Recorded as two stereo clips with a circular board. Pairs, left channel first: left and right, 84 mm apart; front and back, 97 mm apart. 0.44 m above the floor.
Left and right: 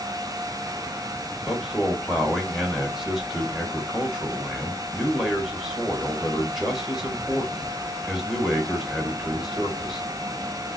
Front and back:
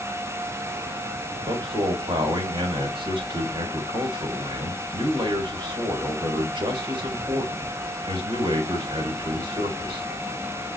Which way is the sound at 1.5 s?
175° right.